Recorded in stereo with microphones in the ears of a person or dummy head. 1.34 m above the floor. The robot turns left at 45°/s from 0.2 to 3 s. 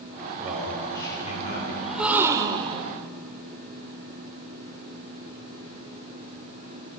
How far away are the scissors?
No scissors in this recording.